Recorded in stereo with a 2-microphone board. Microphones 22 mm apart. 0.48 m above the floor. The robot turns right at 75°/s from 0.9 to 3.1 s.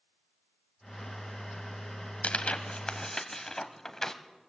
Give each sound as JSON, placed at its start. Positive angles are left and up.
{"t": 2.2, "sound": "tearing paper", "side_deg": 80, "distance_m": 1.5}